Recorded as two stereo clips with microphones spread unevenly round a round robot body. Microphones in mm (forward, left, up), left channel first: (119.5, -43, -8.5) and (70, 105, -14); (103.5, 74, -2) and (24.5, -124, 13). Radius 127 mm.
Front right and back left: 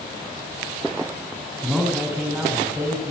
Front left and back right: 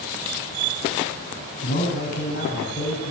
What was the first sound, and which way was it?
A man speaking, 25° left.